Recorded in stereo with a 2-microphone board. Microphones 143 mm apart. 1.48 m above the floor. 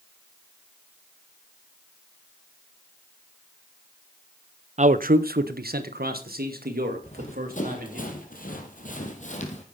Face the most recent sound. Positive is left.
turn(degrees=45)  # may be behind; listen again after turning